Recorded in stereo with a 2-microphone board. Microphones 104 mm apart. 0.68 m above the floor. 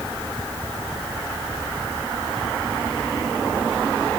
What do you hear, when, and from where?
Only background noise.